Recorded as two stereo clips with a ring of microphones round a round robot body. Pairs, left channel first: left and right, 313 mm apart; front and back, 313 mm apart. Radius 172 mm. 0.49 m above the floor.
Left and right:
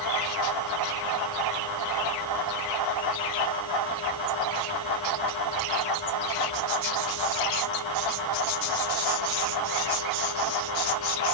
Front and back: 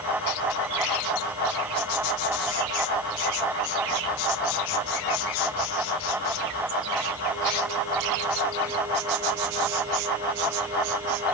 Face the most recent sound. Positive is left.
No sound to turn to.